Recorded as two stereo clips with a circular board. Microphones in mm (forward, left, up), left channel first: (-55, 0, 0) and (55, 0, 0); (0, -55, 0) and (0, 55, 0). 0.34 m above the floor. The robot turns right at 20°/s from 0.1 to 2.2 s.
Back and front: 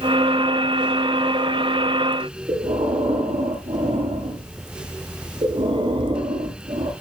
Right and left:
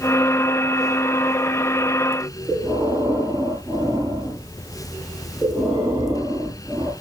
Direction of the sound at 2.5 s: 30° left.